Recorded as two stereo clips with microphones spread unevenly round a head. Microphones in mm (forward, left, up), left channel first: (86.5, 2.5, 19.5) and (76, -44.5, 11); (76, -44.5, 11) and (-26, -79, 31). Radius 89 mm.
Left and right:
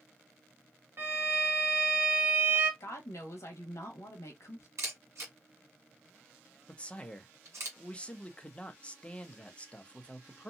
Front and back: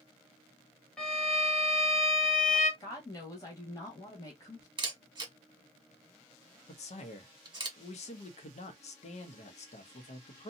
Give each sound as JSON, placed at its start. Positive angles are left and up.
{"t": 1.0, "sound": "a violin", "azimuth_deg": -65, "distance_m": 1.2}
{"t": 2.8, "sound": "a woman speaking", "azimuth_deg": 70, "distance_m": 1.0}
{"t": 4.8, "sound": "a camera shutter", "azimuth_deg": -110, "distance_m": 1.4}
{"t": 6.7, "sound": "a man speaking", "azimuth_deg": 10, "distance_m": 0.8}